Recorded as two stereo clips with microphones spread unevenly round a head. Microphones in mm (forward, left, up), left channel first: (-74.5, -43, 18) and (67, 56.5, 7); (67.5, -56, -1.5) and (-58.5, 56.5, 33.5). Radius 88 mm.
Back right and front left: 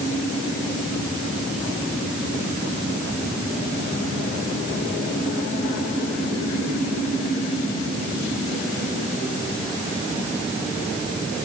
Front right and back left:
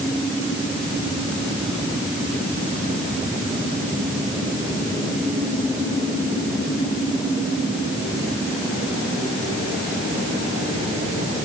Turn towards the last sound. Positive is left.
No sound to turn to.